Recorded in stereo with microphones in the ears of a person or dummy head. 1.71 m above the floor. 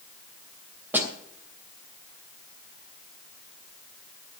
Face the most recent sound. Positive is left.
turn(degrees=-15)  # may be behind; listen again after turning